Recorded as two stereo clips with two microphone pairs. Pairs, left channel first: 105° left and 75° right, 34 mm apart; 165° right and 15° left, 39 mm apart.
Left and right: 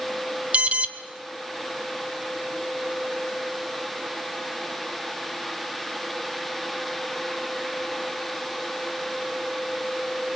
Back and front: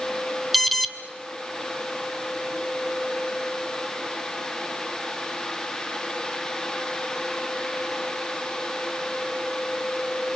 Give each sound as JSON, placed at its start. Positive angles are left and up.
{"t": 0.5, "sound": "an alarm", "azimuth_deg": -75, "distance_m": 1.0}